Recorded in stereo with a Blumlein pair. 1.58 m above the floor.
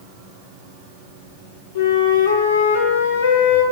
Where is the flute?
55° left, 1.2 m.